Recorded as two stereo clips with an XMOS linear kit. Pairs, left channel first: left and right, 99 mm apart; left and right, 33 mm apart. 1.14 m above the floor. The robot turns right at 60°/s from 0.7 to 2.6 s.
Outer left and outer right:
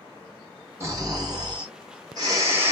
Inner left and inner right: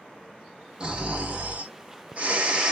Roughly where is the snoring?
Behind right.